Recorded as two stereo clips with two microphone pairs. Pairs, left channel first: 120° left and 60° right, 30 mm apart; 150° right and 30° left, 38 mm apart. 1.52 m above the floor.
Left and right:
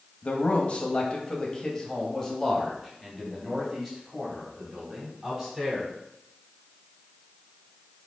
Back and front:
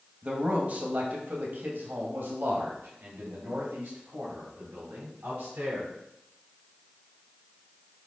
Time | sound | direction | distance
0.2 | a man speaking | 80° left | 1.6 m